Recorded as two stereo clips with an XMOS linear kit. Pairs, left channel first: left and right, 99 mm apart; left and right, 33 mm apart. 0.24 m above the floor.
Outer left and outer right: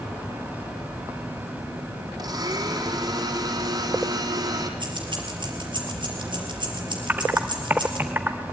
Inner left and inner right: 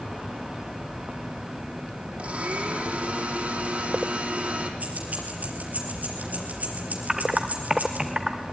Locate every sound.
2.2 s a blender: 45° right (ahead or behind), 3.5 m
4.8 s keys jangling: 55° right (ahead or behind), 4.5 m
7.1 s typing on a keyboard: 20° right (ahead or behind), 1.6 m